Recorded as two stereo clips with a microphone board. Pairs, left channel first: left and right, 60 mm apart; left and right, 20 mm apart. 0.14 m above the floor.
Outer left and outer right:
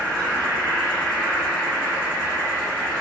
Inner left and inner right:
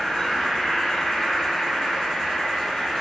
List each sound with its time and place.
0.0 s an insect: 30° left (ahead or behind), 1.6 m